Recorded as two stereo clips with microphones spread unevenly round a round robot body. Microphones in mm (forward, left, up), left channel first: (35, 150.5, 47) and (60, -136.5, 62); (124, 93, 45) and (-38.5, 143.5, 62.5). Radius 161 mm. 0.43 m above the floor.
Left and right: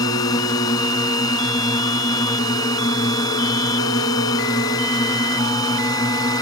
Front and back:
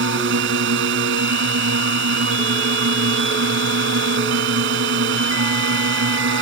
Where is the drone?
175° left.